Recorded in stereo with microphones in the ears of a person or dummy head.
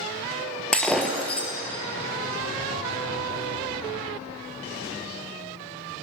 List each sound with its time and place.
0.7 s breaking glass: 10° left (ahead or behind), 2 m